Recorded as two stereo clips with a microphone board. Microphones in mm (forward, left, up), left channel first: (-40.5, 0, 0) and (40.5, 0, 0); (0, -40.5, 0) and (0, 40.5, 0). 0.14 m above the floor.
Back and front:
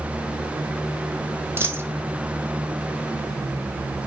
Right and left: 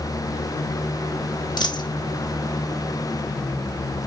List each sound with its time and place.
1.6 s a dropped coin: 60° right, 1.6 m